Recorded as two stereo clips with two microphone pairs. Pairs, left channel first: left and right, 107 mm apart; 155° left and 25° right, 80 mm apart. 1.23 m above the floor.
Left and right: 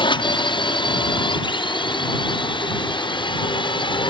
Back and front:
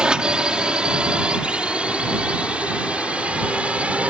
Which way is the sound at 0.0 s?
55° left.